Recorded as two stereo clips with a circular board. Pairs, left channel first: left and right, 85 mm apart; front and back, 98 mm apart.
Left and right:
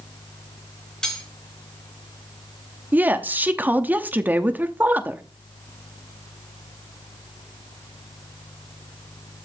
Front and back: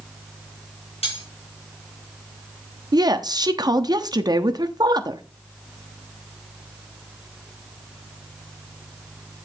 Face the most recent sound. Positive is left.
turn(degrees=-150)